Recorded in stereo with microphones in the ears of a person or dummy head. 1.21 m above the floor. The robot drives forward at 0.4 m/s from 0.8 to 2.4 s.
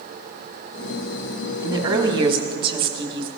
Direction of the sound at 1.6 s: 25° right (ahead or behind).